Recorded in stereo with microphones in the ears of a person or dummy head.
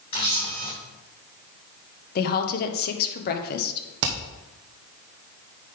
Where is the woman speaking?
50° left (ahead or behind), 1.5 m.